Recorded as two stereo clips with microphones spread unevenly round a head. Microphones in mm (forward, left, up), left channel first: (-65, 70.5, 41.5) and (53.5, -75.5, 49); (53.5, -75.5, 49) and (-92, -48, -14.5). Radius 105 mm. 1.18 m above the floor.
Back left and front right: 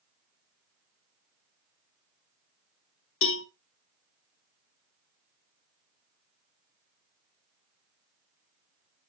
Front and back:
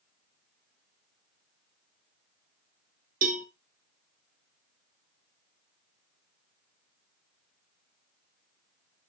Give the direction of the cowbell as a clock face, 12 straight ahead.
8 o'clock.